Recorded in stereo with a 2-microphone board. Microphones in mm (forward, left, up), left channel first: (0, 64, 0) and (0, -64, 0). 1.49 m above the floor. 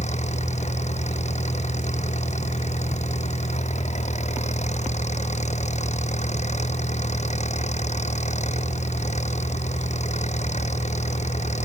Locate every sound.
0.0 s an engine running: 65° left (ahead or behind)